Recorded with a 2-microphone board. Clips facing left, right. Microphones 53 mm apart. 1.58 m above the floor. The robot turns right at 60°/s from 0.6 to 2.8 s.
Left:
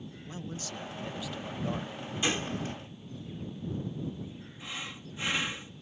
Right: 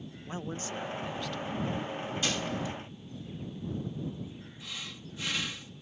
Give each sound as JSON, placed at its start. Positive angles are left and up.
{"t": 0.3, "sound": "a man speaking", "azimuth_deg": -35}
{"t": 2.2, "sound": "a gunshot", "azimuth_deg": 20}
{"t": 4.6, "sound": "breathing", "side_deg": 25}